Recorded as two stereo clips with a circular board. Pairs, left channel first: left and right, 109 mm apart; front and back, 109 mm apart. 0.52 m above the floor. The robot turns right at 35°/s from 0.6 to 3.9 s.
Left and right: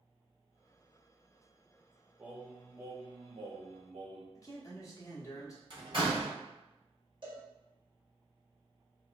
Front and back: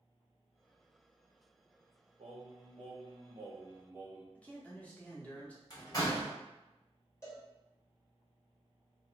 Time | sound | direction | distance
2.2 | singing | 170° right | 0.7 m
4.3 | a man speaking | 70° left | 0.9 m
5.7 | a door slam | 55° right | 1.5 m
7.2 | a cowbell | 60° right | 1.9 m